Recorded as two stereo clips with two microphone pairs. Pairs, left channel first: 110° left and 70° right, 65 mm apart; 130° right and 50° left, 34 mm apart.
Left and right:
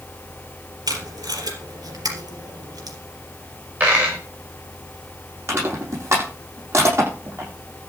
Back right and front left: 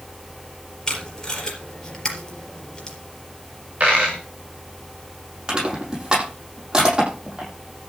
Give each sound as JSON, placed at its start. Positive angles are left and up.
{"t": 0.9, "sound": "tape being pulled", "azimuth_deg": -60, "distance_m": 4.0}
{"t": 3.8, "sound": "a dropped coin", "azimuth_deg": -5, "distance_m": 5.0}
{"t": 5.5, "sound": "crushing", "azimuth_deg": -20, "distance_m": 9.0}